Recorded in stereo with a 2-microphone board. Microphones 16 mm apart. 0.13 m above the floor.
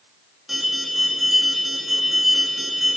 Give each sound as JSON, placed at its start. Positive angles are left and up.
{"t": 0.5, "sound": "an alarm", "side_deg": -25, "distance_m": 5.5}